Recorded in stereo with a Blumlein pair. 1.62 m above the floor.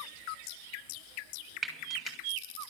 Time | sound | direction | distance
1.6 | frying | 10° right | 6.5 m